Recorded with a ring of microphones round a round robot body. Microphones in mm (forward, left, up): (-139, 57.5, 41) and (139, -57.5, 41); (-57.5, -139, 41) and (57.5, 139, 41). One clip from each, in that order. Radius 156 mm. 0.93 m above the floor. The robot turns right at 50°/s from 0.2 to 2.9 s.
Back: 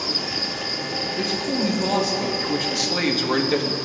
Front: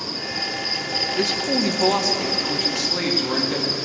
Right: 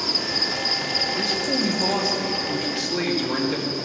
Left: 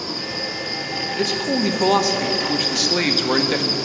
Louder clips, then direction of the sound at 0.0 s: Back 2 dB, right 3 dB; 120° right.